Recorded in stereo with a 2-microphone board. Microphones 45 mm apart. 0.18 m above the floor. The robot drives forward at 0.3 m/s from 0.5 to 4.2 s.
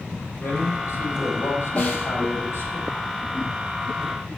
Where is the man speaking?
65° left (ahead or behind), 5 m; by 2.8 s 55° left (ahead or behind), 5 m.